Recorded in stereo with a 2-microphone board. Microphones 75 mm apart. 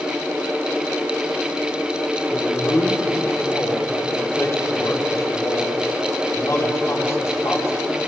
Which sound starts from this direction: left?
A man speaking, at 2.3 s.